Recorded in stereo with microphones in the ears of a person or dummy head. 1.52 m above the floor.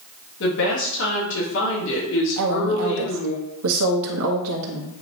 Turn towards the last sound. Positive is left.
turn(degrees=-75)  # may be behind; listen again after turning